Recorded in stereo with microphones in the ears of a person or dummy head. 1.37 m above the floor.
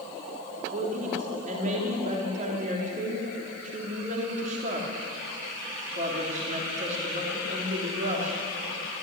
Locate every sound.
0.7 s a woman speaking: 45° right (ahead or behind), 3 m